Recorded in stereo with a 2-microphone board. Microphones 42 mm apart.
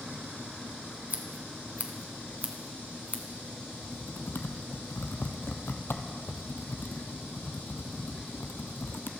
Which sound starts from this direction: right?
Scissors, at 1.1 s.